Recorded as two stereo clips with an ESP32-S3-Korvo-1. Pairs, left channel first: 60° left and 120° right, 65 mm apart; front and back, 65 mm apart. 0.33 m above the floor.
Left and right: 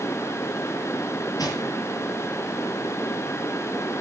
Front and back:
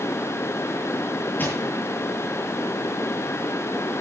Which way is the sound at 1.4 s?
60° left.